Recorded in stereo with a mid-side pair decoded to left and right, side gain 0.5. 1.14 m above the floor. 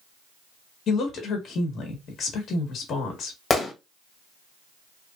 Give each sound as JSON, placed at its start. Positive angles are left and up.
{"t": 0.9, "sound": "a woman speaking", "azimuth_deg": 55, "distance_m": 1.5}
{"t": 3.5, "sound": "a gunshot", "azimuth_deg": 25, "distance_m": 1.4}